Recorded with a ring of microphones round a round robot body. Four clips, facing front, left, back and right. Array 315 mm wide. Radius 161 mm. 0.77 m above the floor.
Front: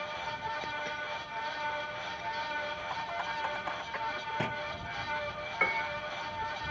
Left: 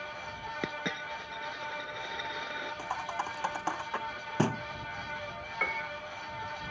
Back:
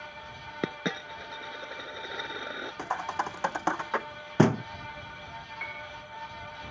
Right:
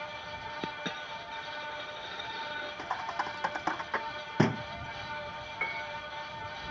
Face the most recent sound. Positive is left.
turn(degrees=20)